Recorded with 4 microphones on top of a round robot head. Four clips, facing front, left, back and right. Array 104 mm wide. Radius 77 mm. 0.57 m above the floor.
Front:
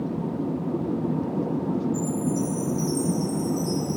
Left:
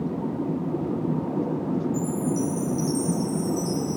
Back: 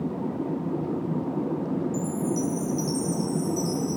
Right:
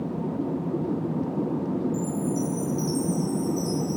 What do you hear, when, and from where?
1.9 s a chime: 170° left, 2.5 m